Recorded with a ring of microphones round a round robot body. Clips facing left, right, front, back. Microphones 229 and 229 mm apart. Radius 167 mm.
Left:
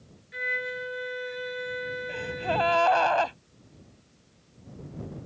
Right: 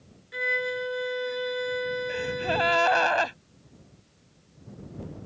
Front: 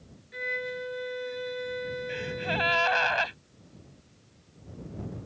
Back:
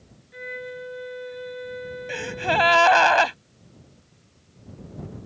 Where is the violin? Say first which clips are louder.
Right 5 dB, even; 55° right.